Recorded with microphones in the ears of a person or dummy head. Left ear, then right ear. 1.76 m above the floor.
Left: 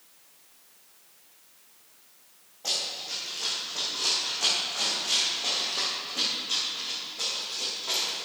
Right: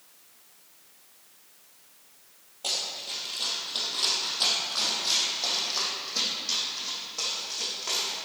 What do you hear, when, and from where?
2.6 s running footsteps: 50° right (ahead or behind), 2.5 m; by 8.2 s 65° right (ahead or behind), 6.5 m